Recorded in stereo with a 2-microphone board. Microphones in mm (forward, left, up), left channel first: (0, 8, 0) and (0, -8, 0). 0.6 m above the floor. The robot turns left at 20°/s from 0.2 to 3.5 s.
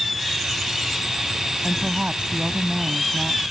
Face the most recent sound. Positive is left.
turn(degrees=-100)